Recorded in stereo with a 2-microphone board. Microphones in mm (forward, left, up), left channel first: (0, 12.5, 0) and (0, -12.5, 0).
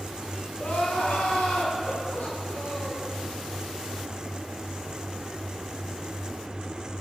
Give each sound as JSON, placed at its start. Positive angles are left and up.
{"t": 0.6, "sound": "crying", "side_deg": 80, "distance_m": 3.5}